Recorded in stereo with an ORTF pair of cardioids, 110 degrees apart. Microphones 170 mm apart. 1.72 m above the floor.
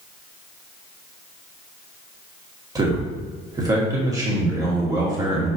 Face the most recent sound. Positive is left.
turn(degrees=-20)